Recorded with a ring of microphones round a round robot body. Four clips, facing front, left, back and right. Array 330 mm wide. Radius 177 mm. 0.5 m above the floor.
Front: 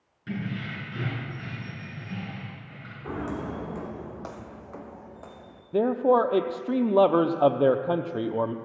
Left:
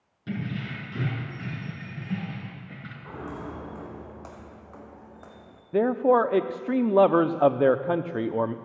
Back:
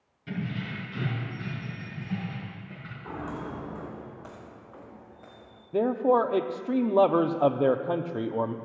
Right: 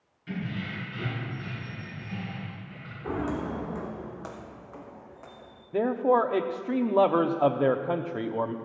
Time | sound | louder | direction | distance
0.3 | keys jangling | left 2 dB, front 1 dB | 70° left | 5.5 m
3.0 | footsteps | right 7 dB, front 4 dB | 55° right | 3 m
5.7 | a man speaking | left 3 dB, front 2 dB | 70° left | 0.7 m